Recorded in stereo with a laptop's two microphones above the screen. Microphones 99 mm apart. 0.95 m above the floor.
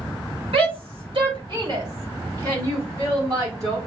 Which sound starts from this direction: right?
A shout, at 0.5 s.